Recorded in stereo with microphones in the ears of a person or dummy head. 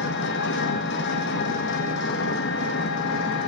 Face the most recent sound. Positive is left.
turn(degrees=70)  # may be behind; listen again after turning